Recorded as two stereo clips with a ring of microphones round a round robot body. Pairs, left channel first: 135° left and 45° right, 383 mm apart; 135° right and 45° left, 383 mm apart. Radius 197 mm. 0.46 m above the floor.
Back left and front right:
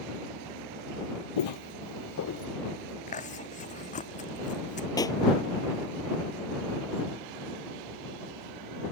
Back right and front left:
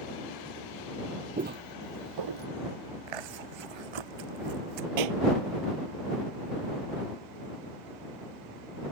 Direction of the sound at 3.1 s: 65° left.